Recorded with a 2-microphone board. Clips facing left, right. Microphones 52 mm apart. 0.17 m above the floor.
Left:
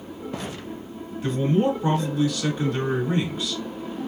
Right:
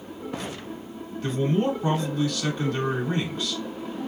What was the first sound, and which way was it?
A man speaking, 5° left (ahead or behind).